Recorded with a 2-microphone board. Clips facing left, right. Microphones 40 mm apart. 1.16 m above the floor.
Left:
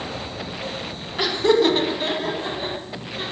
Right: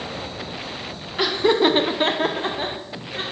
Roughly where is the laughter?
Centre.